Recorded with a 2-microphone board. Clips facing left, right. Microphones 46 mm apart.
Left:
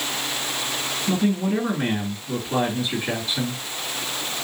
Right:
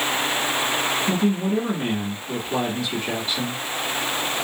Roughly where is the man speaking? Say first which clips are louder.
Left 4 dB; centre.